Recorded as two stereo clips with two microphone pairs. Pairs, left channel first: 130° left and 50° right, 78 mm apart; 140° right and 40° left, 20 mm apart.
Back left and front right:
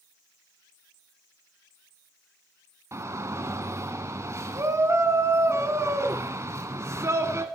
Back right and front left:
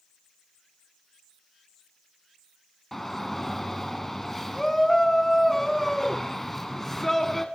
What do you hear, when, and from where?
2.9 s a shout: 65° right, 1.3 m